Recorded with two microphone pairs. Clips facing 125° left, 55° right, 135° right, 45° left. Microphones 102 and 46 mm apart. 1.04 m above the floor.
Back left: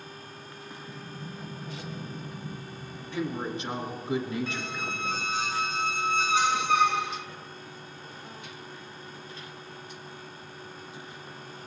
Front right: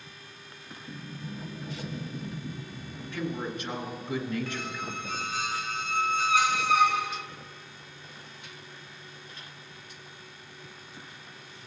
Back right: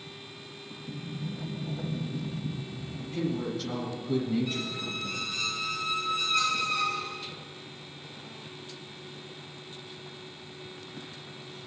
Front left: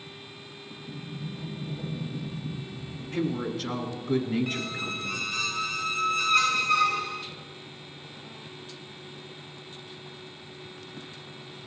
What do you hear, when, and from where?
0.9 s a sliding door: 140° right, 1.6 m
3.1 s a woman speaking: 65° left, 2.5 m
4.5 s a squeak: 60° left, 1.0 m